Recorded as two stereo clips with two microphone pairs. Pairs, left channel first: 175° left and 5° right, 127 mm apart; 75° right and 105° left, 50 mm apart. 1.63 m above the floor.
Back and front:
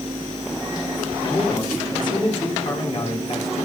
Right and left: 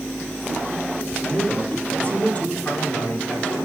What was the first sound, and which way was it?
A man speaking, 125° right.